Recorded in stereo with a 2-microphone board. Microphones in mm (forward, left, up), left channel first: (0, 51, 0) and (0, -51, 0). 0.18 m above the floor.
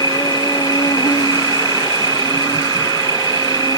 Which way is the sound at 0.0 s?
40° left (ahead or behind).